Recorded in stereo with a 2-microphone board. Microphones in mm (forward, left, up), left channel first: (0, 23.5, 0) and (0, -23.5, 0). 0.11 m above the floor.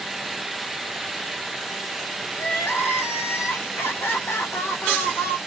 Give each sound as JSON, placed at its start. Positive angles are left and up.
{"t": 2.4, "sound": "crying", "side_deg": 60, "distance_m": 0.8}